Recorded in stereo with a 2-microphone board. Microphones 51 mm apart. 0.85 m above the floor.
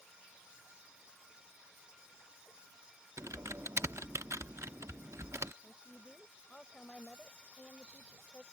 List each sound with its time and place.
3.2 s typing on a keyboard: 65° right (ahead or behind)
5.6 s a woman speaking: 15° left (ahead or behind)